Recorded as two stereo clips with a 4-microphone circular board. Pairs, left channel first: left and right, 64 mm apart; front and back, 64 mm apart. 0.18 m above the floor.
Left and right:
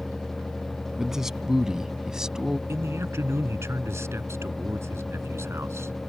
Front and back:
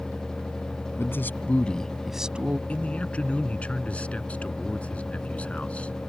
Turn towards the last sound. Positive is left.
turn(degrees=-65)